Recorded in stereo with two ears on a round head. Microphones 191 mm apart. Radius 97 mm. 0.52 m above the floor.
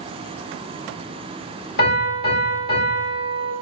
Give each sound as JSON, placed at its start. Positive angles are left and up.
{"t": 1.8, "sound": "a piano", "side_deg": 50, "distance_m": 1.5}